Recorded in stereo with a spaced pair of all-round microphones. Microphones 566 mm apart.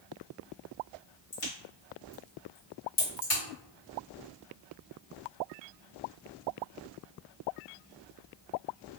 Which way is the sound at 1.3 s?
70° left (ahead or behind).